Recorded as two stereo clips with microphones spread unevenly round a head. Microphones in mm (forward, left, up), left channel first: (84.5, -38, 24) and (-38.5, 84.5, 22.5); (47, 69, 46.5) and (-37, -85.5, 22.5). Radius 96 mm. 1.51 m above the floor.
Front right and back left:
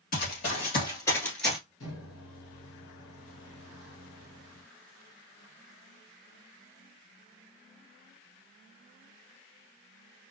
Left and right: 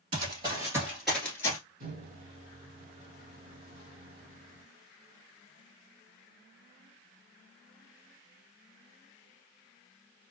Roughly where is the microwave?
Right.